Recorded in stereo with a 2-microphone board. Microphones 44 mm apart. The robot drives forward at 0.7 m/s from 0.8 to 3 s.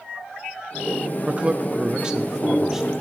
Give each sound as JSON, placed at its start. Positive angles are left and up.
{"t": 1.3, "sound": "a man speaking", "side_deg": -25, "distance_m": 0.6}